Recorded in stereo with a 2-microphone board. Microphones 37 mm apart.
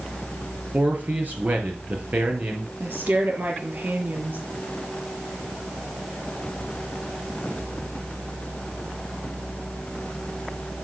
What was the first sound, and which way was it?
A man speaking, 55° right (ahead or behind).